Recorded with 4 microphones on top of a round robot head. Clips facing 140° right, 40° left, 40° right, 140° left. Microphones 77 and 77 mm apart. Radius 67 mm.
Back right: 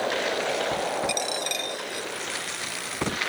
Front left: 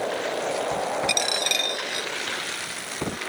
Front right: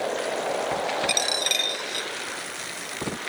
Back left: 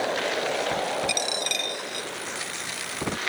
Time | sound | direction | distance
1.1 | a dropped coin | 5° left | ?